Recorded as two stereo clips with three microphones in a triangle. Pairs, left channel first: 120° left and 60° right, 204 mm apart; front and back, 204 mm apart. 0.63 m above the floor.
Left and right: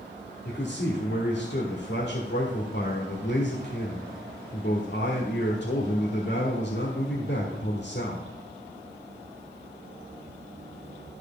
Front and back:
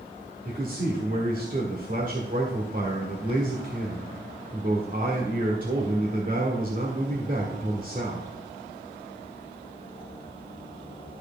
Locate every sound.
0.5 s a man speaking: 140° left, 1.6 m